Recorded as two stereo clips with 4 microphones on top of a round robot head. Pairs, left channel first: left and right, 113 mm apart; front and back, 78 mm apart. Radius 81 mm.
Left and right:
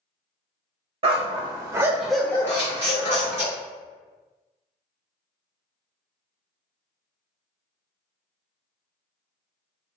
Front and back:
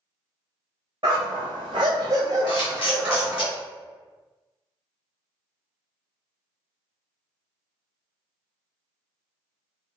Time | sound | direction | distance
1.0 | a dog barking | 120° right | 0.8 m
2.5 | a camera shutter | 15° right | 1.4 m